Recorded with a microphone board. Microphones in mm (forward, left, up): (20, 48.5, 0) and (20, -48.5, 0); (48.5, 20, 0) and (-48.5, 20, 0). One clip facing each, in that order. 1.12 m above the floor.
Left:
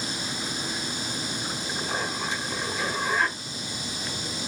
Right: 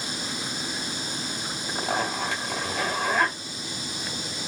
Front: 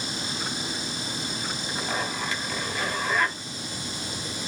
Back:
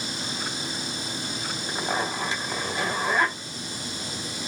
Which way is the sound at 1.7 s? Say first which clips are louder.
Right 5 dB, back 3 dB; 120° right.